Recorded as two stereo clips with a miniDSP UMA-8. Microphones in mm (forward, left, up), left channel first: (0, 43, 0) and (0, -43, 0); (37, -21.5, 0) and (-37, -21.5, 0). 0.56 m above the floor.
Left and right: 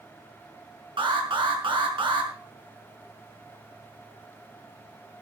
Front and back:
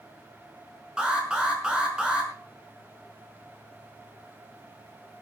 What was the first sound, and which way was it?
An alarm, 105° right.